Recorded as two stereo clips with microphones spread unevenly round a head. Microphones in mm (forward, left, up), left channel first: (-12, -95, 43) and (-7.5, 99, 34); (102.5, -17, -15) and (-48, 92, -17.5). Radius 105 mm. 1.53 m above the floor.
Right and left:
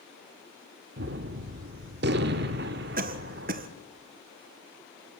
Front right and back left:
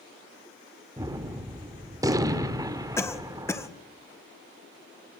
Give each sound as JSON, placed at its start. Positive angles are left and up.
{"t": 1.0, "sound": "a gunshot", "azimuth_deg": 80, "distance_m": 1.4}
{"t": 3.0, "sound": "a cough", "azimuth_deg": 40, "distance_m": 1.7}